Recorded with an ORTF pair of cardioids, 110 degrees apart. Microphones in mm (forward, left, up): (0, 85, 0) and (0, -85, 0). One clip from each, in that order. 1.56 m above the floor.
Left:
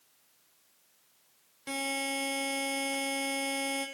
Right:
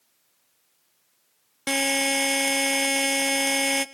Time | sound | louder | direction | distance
1.7 | a buzzer | right 10 dB | 65° right | 0.6 m